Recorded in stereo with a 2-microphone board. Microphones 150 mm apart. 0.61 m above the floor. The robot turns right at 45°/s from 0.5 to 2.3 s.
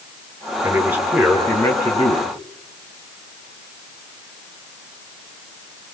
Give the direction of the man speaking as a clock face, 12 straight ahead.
1 o'clock.